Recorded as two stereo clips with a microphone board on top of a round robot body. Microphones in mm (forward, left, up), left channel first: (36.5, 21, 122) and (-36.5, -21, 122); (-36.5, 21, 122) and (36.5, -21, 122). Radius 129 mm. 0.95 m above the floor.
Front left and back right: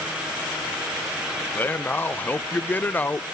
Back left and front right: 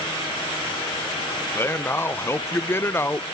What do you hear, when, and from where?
1.6 s a man speaking: 95° left, 0.7 m